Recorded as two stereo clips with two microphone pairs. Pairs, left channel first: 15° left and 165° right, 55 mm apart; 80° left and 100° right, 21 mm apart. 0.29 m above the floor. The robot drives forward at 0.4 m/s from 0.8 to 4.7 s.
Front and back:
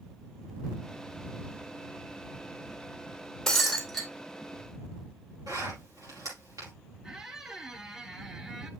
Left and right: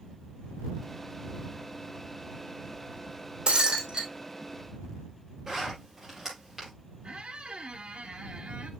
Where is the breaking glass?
70° right, 2.5 m; by 4.1 s 75° right, 2.5 m.